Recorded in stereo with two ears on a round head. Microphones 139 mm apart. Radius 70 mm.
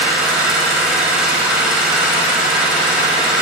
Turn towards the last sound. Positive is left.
turn(degrees=-5)  # may be behind; listen again after turning